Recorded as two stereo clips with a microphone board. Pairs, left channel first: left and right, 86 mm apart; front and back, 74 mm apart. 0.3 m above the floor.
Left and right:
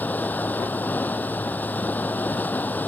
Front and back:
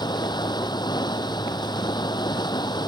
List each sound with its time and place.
0.0 s running water: 20° left